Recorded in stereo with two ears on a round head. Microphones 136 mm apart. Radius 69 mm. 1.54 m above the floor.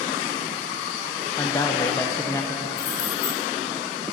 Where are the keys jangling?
60° left (ahead or behind), 4 m.